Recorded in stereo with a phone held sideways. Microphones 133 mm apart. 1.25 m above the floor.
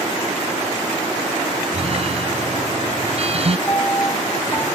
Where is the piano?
25° left (ahead or behind).